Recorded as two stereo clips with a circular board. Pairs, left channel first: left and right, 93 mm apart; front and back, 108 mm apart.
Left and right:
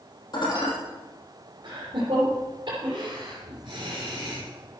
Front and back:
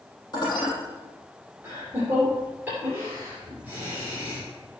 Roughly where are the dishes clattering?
Ahead left.